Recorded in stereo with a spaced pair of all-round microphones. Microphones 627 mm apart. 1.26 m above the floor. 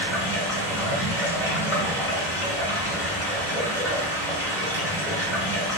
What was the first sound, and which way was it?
Running water, 5° left (ahead or behind).